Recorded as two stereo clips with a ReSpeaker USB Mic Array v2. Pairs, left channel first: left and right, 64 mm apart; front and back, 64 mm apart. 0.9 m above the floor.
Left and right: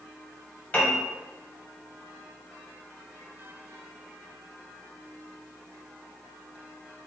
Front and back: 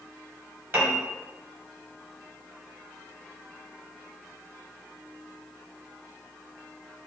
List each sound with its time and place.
0.7 s a piano: 140° left, 0.9 m